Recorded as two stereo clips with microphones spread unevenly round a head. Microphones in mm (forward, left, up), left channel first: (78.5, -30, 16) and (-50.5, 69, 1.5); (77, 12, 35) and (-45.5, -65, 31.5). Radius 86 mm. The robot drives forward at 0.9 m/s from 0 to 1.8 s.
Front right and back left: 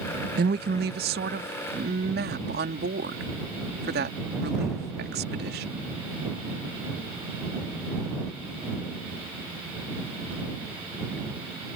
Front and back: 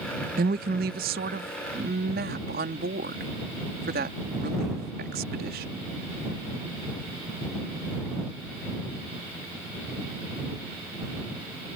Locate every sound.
0.4 s a woman speaking: straight behind